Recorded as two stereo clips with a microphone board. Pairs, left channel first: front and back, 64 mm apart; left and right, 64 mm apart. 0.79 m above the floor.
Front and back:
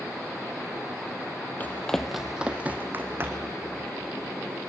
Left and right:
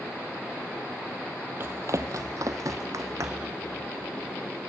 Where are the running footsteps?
55° right, 1.2 m; by 3.5 s 130° right, 2.5 m.